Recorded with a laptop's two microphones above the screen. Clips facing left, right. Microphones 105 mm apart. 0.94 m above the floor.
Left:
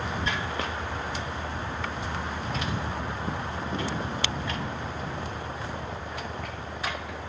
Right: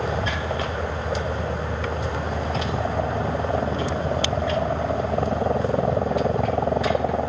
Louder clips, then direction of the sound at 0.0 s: Right 5 dB; 75° right (ahead or behind).